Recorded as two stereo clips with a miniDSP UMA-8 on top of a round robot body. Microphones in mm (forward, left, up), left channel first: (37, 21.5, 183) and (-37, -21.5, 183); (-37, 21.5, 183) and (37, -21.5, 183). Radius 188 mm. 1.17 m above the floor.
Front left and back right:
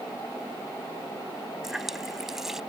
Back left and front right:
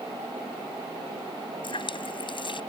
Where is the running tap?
125° left.